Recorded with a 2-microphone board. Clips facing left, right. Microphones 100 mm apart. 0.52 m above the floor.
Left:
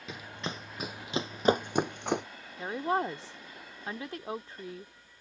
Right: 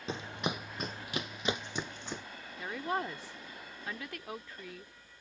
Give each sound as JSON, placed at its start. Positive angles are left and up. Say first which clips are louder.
{"t": 0.1, "sound": "running footsteps", "louder": "right 3 dB", "side_deg": -30}
{"t": 2.6, "sound": "a woman speaking", "louder": "left 5 dB", "side_deg": 30}